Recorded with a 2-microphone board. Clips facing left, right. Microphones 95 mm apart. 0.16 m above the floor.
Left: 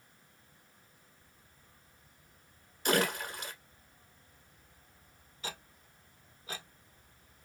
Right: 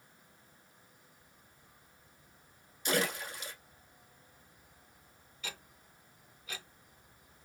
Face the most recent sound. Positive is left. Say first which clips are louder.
# left 3 dB
turn(degrees=35)  # may be behind; listen again after turning